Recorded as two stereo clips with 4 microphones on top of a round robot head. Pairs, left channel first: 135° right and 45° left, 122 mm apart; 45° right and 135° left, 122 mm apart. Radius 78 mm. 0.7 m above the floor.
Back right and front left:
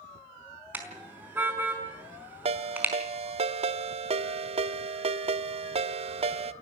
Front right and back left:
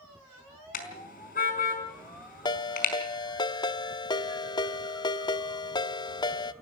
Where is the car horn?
35° right, 4.5 m.